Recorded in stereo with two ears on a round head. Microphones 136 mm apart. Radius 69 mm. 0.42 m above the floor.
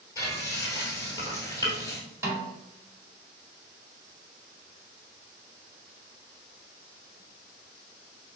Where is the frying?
20° left (ahead or behind), 1.8 m.